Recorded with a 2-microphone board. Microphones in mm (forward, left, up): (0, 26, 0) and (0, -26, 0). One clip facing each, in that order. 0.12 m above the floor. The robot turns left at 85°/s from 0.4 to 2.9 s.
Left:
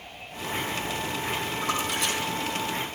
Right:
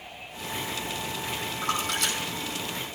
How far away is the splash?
About 2.5 m.